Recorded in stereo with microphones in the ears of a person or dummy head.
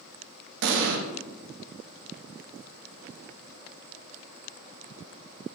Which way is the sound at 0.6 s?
65° right (ahead or behind).